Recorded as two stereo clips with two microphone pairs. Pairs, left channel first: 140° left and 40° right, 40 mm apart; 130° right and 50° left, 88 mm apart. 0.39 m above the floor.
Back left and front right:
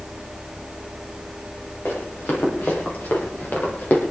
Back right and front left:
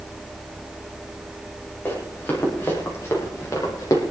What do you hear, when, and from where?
1.9 s running footsteps: 165° left, 7.5 m; by 4.0 s 175° right, 5.5 m